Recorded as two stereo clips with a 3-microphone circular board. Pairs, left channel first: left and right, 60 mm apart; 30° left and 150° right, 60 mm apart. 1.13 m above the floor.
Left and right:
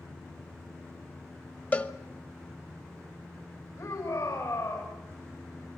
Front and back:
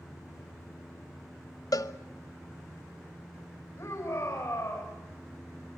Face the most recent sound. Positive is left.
turn(degrees=80)